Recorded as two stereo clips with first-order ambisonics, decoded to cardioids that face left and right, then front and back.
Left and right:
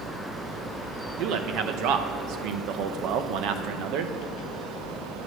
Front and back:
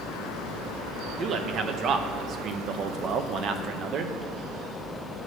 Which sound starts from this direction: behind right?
A man speaking, at 1.2 s.